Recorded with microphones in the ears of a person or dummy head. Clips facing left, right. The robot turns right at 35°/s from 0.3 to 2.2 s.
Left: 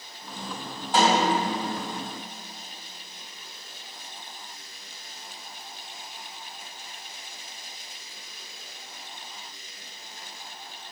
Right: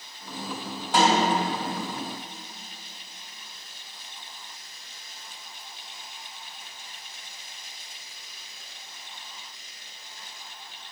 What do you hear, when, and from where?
0.9 s a snare drum: 65° right (ahead or behind), 3.5 m; by 1.3 s 70° right (ahead or behind), 3.5 m